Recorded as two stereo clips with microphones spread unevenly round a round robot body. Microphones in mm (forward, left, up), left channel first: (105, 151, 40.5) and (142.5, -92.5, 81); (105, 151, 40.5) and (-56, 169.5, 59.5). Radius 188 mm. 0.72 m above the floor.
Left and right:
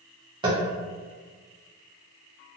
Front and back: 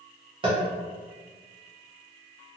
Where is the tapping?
155° right, 0.7 m.